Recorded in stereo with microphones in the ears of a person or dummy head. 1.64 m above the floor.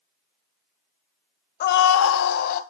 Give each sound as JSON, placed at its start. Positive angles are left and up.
{"t": 1.6, "sound": "a scream", "side_deg": 45, "distance_m": 0.8}